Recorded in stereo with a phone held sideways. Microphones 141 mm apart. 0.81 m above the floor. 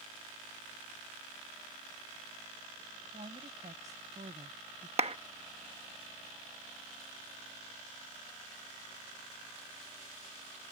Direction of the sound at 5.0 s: 45° right (ahead or behind).